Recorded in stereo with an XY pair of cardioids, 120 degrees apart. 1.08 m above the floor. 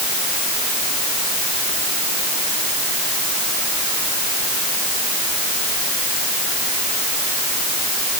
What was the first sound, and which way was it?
Only background noise.